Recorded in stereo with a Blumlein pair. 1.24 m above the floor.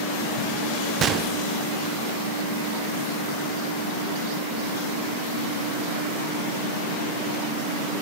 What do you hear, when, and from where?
1.0 s a gunshot: 25° right, 1.0 m